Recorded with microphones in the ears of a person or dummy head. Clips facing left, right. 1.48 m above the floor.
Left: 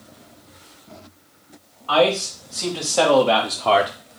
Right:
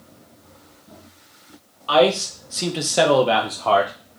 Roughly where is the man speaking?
Right.